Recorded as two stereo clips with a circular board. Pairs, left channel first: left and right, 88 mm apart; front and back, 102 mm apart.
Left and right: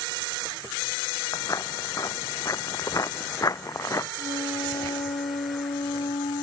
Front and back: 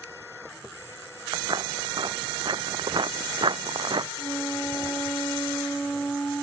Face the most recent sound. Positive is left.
turn(degrees=80)